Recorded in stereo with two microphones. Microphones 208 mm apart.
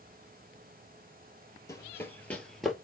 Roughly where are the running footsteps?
Centre.